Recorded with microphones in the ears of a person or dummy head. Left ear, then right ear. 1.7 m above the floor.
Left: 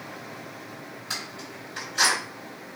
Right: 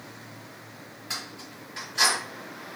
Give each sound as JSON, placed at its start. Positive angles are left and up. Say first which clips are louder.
{"t": 1.1, "sound": "keys jangling", "louder": "left 1 dB", "side_deg": 10, "distance_m": 1.5}